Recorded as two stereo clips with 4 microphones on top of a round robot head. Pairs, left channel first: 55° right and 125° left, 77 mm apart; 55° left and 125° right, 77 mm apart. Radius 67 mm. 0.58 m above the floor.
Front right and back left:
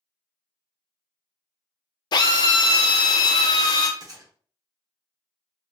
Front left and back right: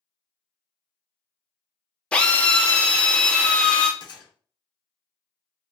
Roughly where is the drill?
Ahead.